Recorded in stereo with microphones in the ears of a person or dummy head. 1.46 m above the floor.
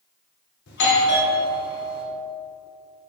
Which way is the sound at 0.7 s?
65° left (ahead or behind).